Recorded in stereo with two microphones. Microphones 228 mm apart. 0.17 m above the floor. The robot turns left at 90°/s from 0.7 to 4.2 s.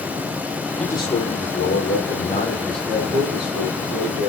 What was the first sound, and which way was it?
A man speaking, straight behind.